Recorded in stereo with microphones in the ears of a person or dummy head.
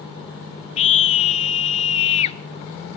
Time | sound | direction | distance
0.8 | a scream | 35° left (ahead or behind) | 0.8 m